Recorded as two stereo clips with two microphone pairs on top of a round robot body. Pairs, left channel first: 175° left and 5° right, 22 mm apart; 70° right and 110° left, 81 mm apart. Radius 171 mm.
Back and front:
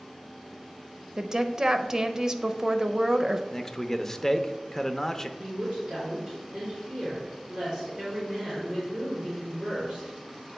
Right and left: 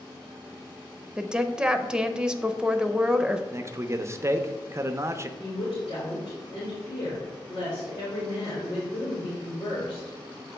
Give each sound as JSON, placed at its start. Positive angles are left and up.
{"t": 1.2, "sound": "a woman speaking", "azimuth_deg": 30, "distance_m": 0.8}
{"t": 3.5, "sound": "a man speaking", "azimuth_deg": 120, "distance_m": 0.8}
{"t": 5.4, "sound": "a woman speaking", "azimuth_deg": -70, "distance_m": 3.0}